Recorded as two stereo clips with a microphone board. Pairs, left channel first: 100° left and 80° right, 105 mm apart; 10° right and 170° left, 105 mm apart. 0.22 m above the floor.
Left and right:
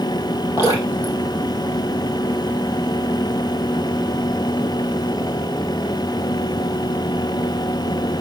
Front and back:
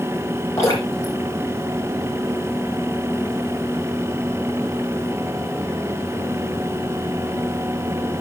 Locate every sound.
0.6 s dripping: 50° left, 6 m